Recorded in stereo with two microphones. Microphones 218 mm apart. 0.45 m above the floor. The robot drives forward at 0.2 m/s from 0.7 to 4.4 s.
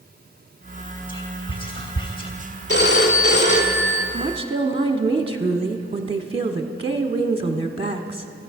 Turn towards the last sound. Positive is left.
turn(degrees=-25)  # may be behind; listen again after turning